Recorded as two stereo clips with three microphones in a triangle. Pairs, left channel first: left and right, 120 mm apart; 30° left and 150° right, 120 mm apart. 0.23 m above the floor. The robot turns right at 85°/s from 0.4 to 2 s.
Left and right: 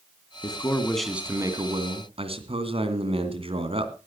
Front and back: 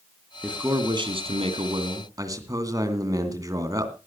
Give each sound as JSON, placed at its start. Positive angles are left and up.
{"t": 0.4, "sound": "a man speaking", "azimuth_deg": 130, "distance_m": 2.5}